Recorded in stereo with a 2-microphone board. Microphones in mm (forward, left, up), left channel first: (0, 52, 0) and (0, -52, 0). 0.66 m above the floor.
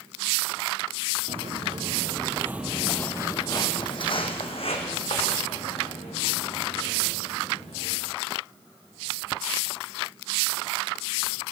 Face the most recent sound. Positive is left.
turn(degrees=80)